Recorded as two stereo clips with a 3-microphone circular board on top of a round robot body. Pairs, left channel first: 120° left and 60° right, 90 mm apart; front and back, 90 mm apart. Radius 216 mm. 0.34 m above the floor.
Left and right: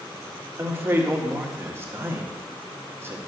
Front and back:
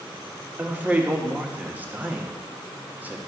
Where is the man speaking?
115° right, 1.7 m.